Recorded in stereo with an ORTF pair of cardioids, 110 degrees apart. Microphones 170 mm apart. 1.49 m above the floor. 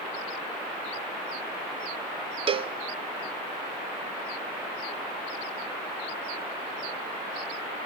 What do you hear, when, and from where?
2.5 s a cowbell: 35° right, 0.8 m